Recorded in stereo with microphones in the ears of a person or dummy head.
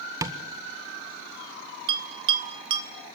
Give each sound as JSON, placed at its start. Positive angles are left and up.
{"t": 0.2, "sound": "tapping", "side_deg": -15, "distance_m": 1.4}
{"t": 1.9, "sound": "a bell", "side_deg": -30, "distance_m": 2.0}